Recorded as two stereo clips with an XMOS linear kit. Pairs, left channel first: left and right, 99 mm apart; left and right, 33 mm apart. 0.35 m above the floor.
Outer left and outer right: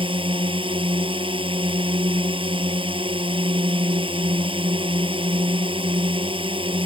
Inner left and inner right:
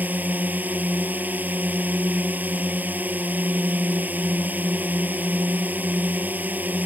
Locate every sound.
0.0 s a drone: 65° right (ahead or behind)